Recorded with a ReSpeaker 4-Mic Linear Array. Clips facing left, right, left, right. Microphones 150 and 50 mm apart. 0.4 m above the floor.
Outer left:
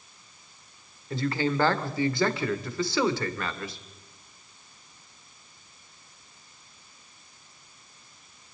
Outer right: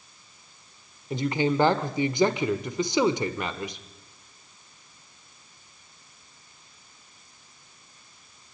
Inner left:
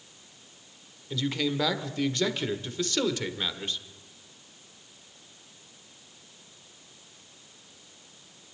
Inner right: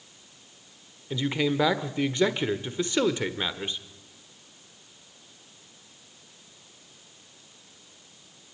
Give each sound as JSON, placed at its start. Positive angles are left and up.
{"t": 1.1, "sound": "a man speaking", "side_deg": -20, "distance_m": 1.2}